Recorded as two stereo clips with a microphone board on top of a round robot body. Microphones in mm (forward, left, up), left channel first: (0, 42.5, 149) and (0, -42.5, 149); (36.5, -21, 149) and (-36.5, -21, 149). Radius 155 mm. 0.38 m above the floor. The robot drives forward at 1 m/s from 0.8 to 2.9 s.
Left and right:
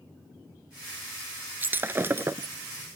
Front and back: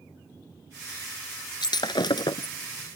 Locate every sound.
1.6 s breaking glass: 20° right; by 2.5 s 30° right